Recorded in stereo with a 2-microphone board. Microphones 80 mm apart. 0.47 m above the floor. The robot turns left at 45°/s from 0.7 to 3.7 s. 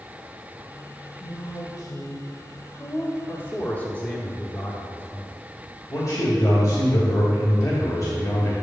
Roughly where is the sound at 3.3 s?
Left.